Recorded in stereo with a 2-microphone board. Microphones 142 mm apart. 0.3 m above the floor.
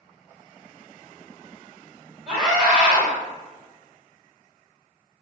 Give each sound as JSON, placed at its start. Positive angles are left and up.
{"t": 2.3, "sound": "a scream", "side_deg": -10, "distance_m": 1.9}